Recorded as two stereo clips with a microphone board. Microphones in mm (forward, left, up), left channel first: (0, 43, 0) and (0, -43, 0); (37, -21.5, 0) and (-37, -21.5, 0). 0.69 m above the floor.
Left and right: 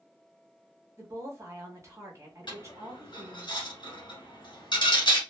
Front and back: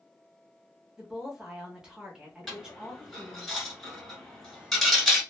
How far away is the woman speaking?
About 1.1 m.